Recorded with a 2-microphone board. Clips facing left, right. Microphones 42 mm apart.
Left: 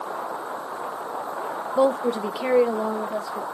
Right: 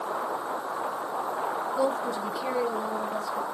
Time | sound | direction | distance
1.8 | a woman speaking | 60° left (ahead or behind) | 0.8 m